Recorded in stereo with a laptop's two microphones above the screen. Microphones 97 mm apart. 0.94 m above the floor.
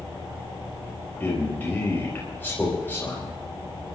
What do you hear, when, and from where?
1.2 s a man speaking: 20° left (ahead or behind), 5 m